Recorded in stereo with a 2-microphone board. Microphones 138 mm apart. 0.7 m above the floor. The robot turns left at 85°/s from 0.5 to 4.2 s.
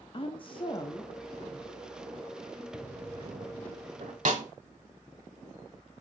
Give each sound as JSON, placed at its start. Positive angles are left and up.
{"t": 0.1, "sound": "a woman speaking", "azimuth_deg": 75, "distance_m": 0.6}
{"t": 2.7, "sound": "a drawer", "azimuth_deg": -5, "distance_m": 1.1}
{"t": 4.2, "sound": "a snare drum", "side_deg": -65, "distance_m": 1.0}